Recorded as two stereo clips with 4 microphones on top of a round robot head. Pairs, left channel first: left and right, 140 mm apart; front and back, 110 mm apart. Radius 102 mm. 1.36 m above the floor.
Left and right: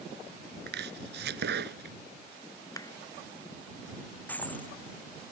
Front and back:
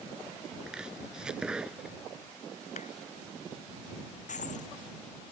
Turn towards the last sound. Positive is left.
turn(degrees=10)